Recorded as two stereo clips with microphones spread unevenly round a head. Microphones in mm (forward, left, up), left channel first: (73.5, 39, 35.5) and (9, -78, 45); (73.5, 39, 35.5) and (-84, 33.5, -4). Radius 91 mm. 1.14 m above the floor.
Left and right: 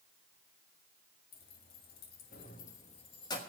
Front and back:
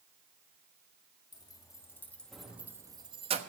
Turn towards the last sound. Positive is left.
turn(degrees=130)